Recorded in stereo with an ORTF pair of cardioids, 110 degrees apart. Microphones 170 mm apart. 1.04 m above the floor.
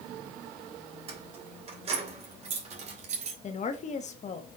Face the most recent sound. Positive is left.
turn(degrees=45)